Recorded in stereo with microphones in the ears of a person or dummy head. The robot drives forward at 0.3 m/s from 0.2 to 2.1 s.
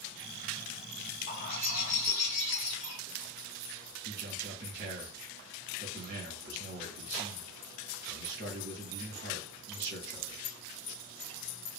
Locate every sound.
1.3 s a bird: 50° left (ahead or behind), 0.8 m; by 3.0 s 35° left (ahead or behind), 1.0 m
4.0 s a man speaking: 55° right (ahead or behind), 1.6 m